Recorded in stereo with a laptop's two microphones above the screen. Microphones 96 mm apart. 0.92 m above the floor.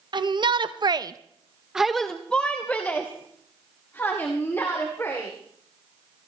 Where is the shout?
50° right (ahead or behind), 1.0 m; by 5.3 s 25° left (ahead or behind), 3 m.